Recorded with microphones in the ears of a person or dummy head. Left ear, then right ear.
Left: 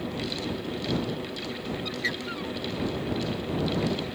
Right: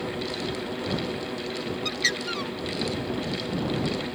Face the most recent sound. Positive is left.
turn(degrees=-35)  # may be behind; listen again after turning